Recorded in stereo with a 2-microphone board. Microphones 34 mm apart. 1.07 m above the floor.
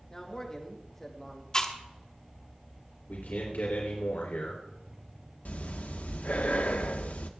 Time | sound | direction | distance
0.1 | a man speaking | 20° left (ahead or behind) | 2.5 m
1.5 | chewing | 25° left (ahead or behind) | 1.2 m
3.1 | a man speaking | 75° left (ahead or behind) | 3.5 m
5.5 | breathing | 60° left (ahead or behind) | 1.0 m